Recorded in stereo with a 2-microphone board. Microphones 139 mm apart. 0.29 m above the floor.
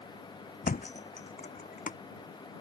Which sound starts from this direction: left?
A thud, at 0.6 s.